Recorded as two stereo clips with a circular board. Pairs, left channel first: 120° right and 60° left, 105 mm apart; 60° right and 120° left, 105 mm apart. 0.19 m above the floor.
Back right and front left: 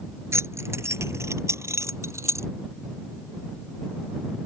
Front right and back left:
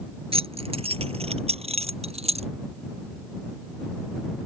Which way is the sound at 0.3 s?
120° left.